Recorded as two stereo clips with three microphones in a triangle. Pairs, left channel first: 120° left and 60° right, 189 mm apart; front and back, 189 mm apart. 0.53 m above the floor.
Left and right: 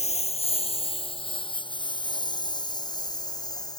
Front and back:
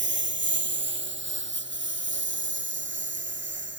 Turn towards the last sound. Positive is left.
turn(degrees=-170)